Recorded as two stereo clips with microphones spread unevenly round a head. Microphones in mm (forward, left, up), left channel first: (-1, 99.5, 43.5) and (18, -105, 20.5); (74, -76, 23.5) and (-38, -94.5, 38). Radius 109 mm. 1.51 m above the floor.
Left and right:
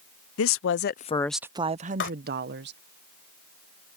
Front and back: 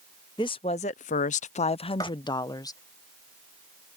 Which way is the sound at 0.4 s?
75° left.